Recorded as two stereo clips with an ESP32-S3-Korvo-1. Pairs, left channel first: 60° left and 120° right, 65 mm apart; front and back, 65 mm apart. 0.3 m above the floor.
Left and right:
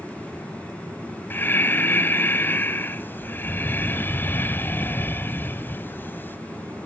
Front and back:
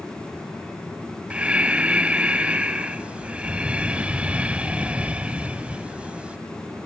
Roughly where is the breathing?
Left.